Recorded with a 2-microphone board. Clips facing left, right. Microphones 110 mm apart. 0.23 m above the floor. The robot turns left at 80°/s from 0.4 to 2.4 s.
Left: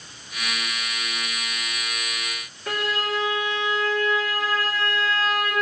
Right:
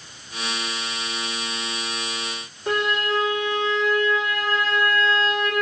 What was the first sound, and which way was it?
A violin, 25° right (ahead or behind).